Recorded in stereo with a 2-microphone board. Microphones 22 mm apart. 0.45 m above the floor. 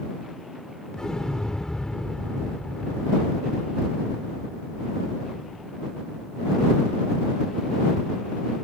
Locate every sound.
0.9 s an explosion: 30° left (ahead or behind)